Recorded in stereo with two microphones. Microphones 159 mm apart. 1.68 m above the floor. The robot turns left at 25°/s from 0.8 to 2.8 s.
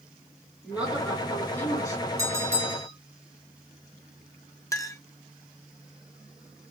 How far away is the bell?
About 1.4 m.